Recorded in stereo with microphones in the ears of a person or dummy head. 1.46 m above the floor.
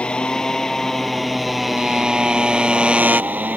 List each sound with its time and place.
0.0 s a motorcycle: 5° left (ahead or behind); by 3.6 s 10° right (ahead or behind)